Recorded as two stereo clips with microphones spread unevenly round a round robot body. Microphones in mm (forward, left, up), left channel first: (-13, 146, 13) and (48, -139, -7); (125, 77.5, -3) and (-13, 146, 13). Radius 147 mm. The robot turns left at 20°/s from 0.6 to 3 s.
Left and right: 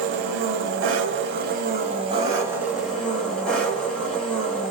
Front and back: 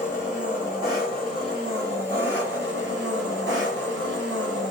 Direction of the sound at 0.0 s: 120° right.